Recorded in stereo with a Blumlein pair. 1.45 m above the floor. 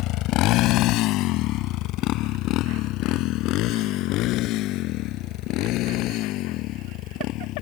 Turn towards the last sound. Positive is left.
turn(degrees=40)